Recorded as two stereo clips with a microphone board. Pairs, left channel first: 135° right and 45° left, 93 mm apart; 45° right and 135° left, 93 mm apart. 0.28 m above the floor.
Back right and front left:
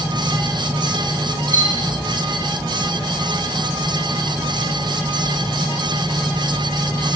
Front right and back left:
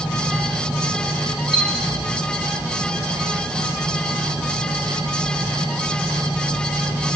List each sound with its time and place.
1.5 s a chime: 10° right, 7.5 m